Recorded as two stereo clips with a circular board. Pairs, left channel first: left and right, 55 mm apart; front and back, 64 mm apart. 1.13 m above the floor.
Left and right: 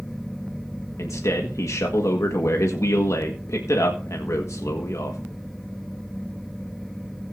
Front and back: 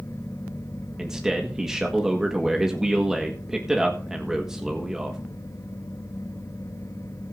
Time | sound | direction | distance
1.0 | a man speaking | 100° left | 1.6 m